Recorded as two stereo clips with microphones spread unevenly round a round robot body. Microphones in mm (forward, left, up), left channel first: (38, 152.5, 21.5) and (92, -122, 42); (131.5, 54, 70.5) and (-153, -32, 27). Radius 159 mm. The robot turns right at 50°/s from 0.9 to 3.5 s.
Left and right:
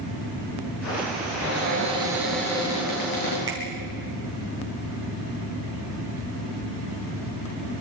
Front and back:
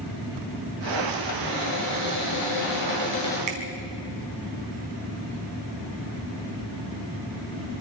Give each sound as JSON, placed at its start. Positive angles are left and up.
{"t": 1.4, "sound": "a cupboard door", "azimuth_deg": -35, "distance_m": 9.5}
{"t": 3.5, "sound": "a finger snap", "azimuth_deg": -160, "distance_m": 3.5}